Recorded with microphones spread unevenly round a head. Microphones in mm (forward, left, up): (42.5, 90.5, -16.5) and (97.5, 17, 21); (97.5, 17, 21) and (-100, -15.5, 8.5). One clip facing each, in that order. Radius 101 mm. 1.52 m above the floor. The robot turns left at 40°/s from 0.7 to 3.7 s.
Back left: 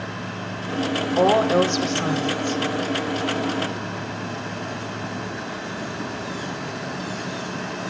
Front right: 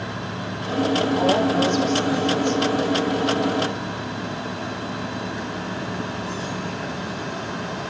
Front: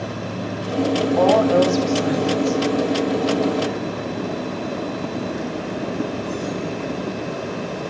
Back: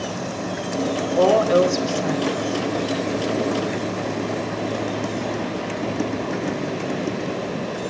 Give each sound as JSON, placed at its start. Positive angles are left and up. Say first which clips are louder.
{"t": 1.2, "sound": "a woman speaking", "louder": "back left 5 dB, even", "azimuth_deg": 135, "distance_m": 4.0}